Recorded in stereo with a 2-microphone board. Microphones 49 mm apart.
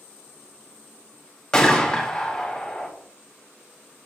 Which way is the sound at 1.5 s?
15° left (ahead or behind).